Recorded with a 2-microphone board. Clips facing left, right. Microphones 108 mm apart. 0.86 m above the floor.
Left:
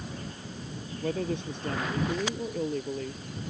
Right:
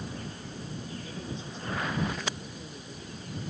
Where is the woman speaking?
65° left (ahead or behind).